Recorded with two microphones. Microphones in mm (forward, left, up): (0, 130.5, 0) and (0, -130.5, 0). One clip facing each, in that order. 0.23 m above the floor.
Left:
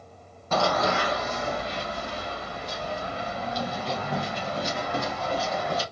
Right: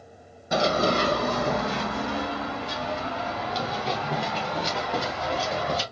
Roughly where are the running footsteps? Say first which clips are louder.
Right 2 dB; centre.